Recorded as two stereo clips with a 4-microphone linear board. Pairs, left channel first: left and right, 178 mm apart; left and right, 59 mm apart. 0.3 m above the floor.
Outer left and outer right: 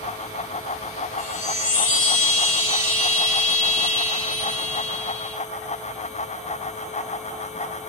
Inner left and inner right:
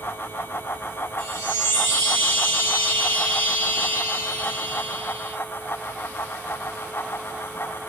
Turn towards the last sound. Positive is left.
turn(degrees=40)  # may be behind; listen again after turning